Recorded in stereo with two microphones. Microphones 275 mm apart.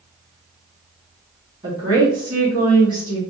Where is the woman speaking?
30° right (ahead or behind), 2 m.